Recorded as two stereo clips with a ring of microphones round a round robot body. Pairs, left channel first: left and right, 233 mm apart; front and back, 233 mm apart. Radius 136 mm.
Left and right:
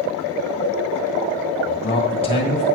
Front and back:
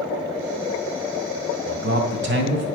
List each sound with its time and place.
1.7 s a man speaking: 150° left, 1.8 m